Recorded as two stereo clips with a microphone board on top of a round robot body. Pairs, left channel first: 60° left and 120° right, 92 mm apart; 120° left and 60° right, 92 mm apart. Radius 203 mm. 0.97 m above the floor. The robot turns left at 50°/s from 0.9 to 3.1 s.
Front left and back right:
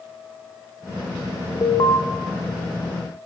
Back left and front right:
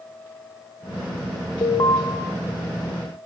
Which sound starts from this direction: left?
An alarm, at 1.6 s.